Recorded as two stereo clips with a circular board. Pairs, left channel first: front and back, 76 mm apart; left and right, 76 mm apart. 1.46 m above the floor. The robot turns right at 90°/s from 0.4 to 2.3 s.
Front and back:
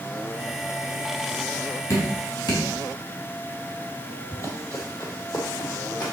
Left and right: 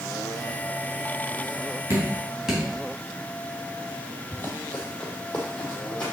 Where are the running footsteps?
35° left, 2 m; by 6.1 s 10° left, 3 m.